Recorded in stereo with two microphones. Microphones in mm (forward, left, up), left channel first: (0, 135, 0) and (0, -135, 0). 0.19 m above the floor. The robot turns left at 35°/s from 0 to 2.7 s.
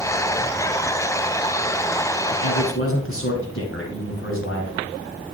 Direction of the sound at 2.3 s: 50° left (ahead or behind).